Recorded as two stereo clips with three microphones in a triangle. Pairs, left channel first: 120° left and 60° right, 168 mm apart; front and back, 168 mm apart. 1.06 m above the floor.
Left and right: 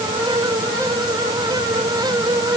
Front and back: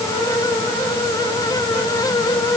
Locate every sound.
Only background noise.